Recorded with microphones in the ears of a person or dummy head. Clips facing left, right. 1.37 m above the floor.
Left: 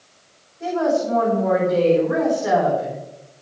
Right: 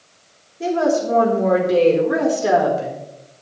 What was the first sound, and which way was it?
A woman speaking, 60° right (ahead or behind).